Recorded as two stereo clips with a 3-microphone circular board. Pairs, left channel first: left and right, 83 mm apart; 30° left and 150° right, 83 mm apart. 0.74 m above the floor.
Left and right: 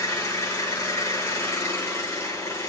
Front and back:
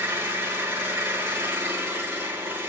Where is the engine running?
145° left, 5 m.